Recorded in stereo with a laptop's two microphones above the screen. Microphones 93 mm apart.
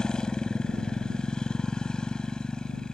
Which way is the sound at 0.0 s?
5° left (ahead or behind).